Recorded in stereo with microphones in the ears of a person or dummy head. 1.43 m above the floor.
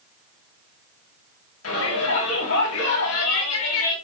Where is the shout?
85° left, 10 m.